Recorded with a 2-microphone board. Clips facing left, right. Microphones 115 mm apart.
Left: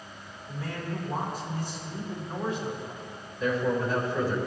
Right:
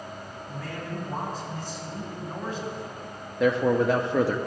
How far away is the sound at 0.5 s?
About 3.5 m.